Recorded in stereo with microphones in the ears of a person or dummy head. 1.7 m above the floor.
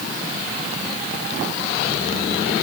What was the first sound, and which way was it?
Only background noise.